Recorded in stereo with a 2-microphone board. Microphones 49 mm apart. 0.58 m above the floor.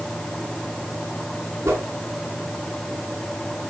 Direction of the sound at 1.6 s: 70° right (ahead or behind).